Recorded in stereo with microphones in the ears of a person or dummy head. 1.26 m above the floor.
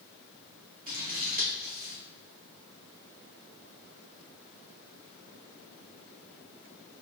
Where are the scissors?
40° right (ahead or behind), 0.9 m.